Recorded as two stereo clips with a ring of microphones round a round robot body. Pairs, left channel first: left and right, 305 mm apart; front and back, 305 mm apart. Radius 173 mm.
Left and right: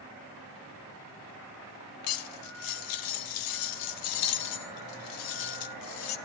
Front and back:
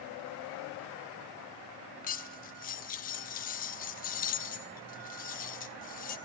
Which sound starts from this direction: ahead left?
Cutlery clinking, at 2.0 s.